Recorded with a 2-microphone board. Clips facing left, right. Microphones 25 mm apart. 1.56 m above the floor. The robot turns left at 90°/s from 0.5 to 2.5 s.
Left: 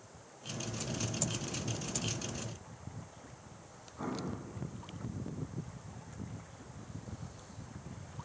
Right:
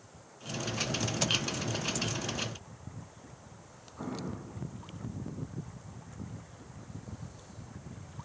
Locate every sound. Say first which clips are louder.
4.0 s an explosion: even; 15° right (ahead or behind), 9 m